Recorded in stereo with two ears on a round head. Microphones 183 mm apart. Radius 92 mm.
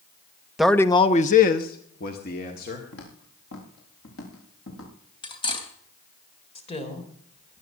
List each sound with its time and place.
0.6 s a man speaking: centre (ahead or behind), 0.8 m; by 2.8 s 45° left (ahead or behind), 2.5 m
2.9 s footsteps: 75° left (ahead or behind), 5.5 m; by 4.9 s 65° left (ahead or behind), 7.5 m
5.2 s cutlery clinking: 25° left (ahead or behind), 3 m
6.5 s a woman speaking: 30° left (ahead or behind), 3.5 m